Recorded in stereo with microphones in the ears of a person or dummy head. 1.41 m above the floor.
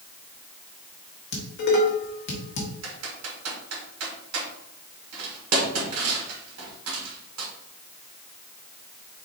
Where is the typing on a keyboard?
80° right, 1.6 m.